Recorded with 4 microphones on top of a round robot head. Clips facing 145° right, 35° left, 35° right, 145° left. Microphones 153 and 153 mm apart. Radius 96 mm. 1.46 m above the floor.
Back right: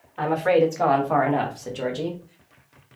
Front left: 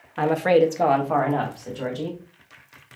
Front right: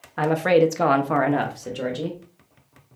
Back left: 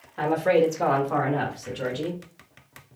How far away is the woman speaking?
About 0.8 m.